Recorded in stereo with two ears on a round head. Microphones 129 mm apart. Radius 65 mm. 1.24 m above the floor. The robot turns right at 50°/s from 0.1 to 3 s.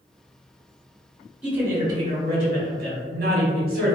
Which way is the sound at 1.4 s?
170° right.